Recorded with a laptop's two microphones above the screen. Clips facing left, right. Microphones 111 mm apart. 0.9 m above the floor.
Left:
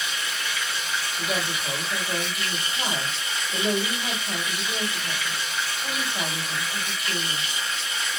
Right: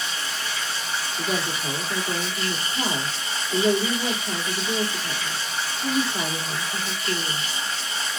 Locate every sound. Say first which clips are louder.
0.0 s running water: right 1 dB; 35° right (ahead or behind), 1.0 m
1.2 s a woman speaking: right 2 dB; 65° right (ahead or behind), 1.9 m